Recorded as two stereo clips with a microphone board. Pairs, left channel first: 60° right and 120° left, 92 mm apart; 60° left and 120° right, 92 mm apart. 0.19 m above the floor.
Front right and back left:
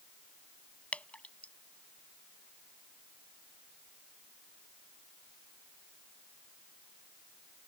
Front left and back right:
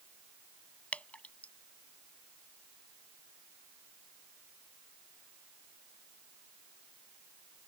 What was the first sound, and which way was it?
Dripping, straight ahead.